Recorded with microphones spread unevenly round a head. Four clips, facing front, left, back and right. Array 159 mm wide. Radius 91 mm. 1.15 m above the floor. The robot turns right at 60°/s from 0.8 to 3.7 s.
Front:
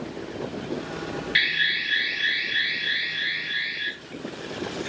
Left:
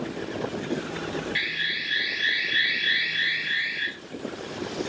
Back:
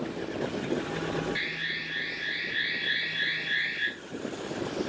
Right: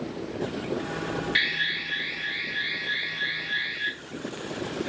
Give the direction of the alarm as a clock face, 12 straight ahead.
1 o'clock.